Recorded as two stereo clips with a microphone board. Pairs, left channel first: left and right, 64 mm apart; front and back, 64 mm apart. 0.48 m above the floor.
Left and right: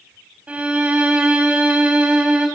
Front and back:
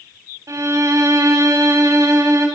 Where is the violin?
155° right, 3.5 m.